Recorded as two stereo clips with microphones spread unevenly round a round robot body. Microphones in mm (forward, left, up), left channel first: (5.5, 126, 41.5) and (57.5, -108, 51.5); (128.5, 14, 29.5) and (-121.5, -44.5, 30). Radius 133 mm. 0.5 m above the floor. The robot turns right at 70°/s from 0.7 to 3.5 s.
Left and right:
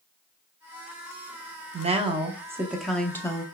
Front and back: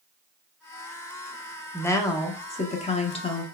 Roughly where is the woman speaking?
Ahead right.